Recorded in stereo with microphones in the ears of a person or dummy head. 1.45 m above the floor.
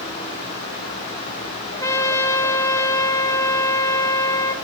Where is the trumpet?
15° left (ahead or behind), 1.6 m.